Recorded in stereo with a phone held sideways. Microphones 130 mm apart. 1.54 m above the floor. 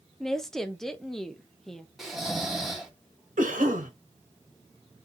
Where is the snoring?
Centre (ahead or behind), 1.3 m.